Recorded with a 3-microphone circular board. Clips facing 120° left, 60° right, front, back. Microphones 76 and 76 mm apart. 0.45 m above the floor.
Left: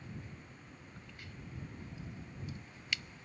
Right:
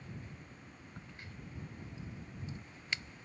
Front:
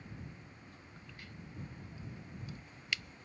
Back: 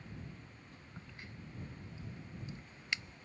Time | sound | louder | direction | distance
1.0 | a crack | right 2 dB, back 2 dB | 120° right | ?